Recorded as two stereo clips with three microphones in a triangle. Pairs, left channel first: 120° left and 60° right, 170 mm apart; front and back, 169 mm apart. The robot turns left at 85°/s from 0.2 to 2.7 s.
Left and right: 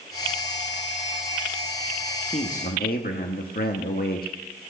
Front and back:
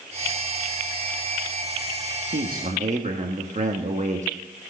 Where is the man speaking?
170° left, 1.2 m; by 4.3 s 140° left, 1.2 m.